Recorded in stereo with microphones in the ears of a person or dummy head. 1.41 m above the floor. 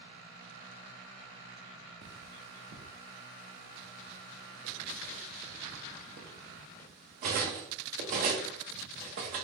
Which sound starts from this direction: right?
Cutlery clinking, at 2.0 s.